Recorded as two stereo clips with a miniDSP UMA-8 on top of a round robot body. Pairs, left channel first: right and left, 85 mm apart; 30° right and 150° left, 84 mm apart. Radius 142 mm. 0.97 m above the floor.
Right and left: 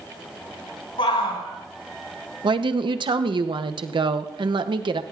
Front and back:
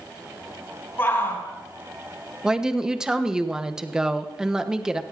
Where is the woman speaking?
65° left, 0.9 m.